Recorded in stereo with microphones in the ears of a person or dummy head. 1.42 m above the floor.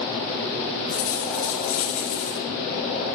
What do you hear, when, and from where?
0.9 s a dropped coin: 45° left (ahead or behind), 3 m